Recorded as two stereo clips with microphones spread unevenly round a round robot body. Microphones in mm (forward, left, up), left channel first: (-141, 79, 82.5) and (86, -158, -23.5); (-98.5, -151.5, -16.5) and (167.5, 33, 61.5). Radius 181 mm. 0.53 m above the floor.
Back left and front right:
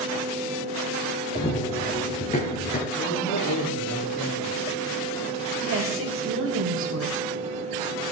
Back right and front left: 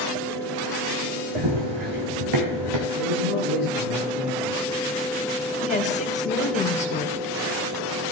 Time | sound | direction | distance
1.4 | running footsteps | 65° left | 1.9 m
3.0 | a man speaking | 75° left | 7 m
5.6 | a woman speaking | 85° right | 2.5 m